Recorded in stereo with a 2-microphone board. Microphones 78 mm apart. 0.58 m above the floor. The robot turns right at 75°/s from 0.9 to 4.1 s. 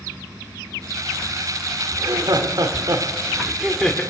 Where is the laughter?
130° right, 1.3 m; by 4.0 s 25° left, 1.3 m.